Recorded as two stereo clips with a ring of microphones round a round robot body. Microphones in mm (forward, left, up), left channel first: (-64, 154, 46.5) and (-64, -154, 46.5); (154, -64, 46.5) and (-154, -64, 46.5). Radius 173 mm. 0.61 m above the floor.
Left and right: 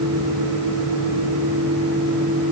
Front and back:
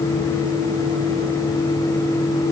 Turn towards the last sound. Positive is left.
No sound to turn to.